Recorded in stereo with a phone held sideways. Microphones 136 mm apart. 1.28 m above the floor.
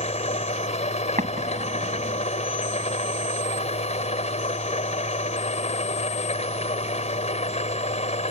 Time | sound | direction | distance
0.0 | an engine running | 55° left (ahead or behind) | ?
1.2 | an explosion | 70° right (ahead or behind) | ?